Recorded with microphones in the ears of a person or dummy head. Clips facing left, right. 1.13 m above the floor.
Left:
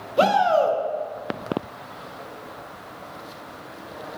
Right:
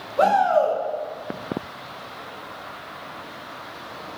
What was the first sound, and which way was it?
A shout, 40° left (ahead or behind).